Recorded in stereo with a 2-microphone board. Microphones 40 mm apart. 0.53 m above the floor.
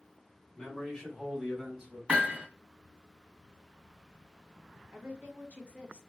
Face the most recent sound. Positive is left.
turn(degrees=-35)  # may be behind; listen again after turning